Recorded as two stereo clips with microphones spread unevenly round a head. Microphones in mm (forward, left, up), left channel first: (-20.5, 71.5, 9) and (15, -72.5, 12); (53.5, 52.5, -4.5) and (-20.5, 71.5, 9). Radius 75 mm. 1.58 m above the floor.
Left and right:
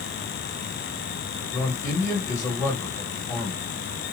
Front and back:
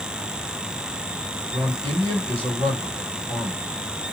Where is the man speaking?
175° left, 1.9 m.